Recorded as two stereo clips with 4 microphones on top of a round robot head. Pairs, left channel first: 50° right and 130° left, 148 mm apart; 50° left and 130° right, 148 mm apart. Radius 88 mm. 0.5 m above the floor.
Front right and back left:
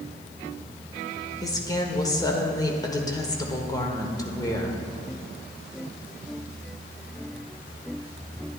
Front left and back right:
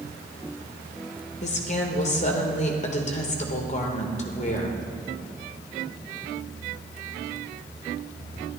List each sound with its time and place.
1.4 s a woman speaking: 15° left, 1.4 m